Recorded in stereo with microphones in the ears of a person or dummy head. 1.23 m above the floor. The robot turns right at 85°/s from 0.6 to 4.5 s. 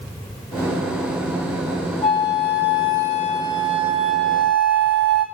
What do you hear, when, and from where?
2.0 s a flute: 35° left, 1.9 m; by 5.2 s 115° right, 1.9 m